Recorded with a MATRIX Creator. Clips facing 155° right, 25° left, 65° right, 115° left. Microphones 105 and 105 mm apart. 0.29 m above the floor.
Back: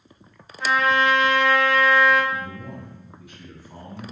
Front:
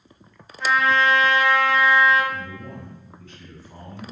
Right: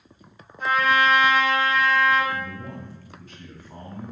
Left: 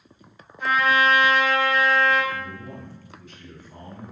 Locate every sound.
0.6 s a trumpet: 75° right, 1.9 m
2.3 s a man speaking: 85° right, 1.6 m